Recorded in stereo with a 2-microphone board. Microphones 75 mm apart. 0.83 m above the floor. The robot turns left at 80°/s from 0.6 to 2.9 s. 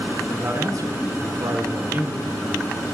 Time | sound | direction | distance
0.3 | a man speaking | 45° right | 2.5 m